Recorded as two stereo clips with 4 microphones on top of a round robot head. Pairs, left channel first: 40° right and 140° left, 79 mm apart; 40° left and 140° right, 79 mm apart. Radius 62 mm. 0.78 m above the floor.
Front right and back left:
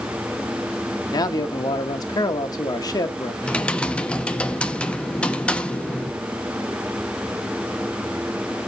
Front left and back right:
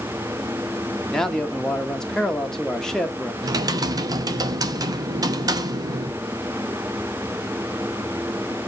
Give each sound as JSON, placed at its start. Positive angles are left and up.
{"t": 1.1, "sound": "a man speaking", "azimuth_deg": -40, "distance_m": 1.3}
{"t": 3.4, "sound": "typing on a keyboard", "azimuth_deg": -115, "distance_m": 0.9}